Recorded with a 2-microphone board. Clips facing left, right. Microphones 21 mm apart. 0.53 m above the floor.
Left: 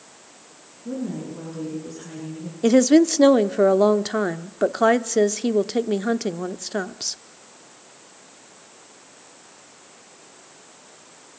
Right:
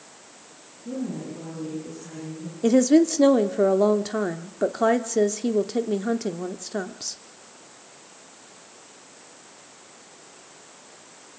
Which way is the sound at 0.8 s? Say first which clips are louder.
Left 2 dB; 60° left (ahead or behind).